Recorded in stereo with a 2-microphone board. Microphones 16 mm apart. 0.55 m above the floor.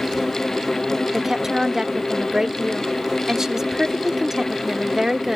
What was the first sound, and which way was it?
A woman speaking, 30° right (ahead or behind).